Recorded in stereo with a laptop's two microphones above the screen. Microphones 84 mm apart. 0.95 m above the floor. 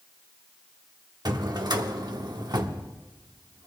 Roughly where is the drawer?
Right.